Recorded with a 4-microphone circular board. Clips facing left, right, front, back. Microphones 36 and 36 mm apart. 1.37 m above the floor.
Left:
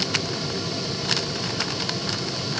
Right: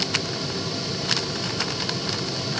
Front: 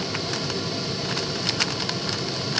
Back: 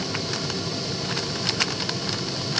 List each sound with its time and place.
Only background noise.